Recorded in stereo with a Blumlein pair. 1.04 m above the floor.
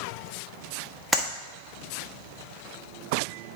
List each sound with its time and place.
1.1 s a clap: 5° right, 1.1 m